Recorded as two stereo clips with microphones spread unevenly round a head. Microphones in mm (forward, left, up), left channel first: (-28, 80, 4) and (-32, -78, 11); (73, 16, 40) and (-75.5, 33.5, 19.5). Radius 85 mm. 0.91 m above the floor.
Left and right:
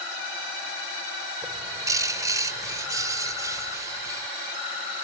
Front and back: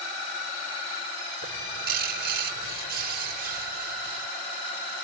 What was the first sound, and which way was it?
A bird, 160° right.